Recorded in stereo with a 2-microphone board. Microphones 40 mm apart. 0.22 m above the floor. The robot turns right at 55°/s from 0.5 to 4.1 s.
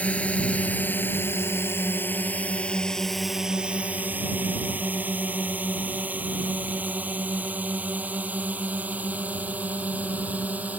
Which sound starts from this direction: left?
A drone, at 0.0 s.